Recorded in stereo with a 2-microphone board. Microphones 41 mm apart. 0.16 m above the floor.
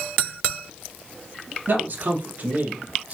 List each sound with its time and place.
1.7 s a man speaking: 55° right (ahead or behind), 3 m; by 3.1 s 45° right (ahead or behind), 2.0 m